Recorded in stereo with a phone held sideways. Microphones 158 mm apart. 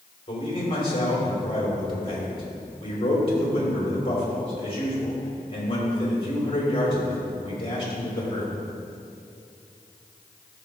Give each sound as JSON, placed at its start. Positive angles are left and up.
{"t": 0.3, "sound": "a man speaking", "side_deg": 35, "distance_m": 3.0}